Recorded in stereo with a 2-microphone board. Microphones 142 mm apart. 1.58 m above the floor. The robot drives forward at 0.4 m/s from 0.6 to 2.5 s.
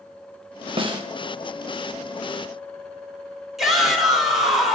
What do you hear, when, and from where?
0.8 s a snare drum: 40° right (ahead or behind), 0.7 m; by 1.0 s 35° right (ahead or behind), 0.8 m
3.6 s a shout: centre (ahead or behind), 1.4 m